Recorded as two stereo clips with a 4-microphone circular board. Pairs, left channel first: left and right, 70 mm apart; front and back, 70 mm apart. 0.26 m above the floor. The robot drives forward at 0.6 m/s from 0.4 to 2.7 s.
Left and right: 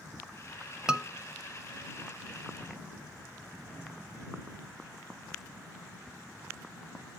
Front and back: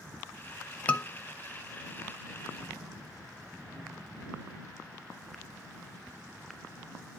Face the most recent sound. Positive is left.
turn(degrees=-165)